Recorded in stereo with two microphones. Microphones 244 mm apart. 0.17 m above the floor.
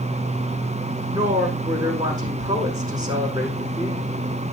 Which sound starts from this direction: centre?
A woman speaking, at 1.1 s.